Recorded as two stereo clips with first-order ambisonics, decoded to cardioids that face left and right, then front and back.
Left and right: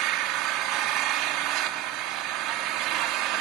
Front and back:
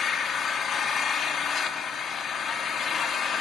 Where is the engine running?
65° right, 1.6 m.